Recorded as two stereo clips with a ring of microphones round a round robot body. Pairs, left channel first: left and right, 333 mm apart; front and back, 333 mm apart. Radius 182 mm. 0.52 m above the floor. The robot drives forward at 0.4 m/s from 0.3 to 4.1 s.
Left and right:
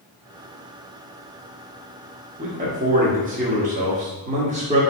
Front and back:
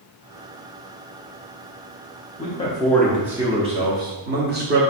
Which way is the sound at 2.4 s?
45° right.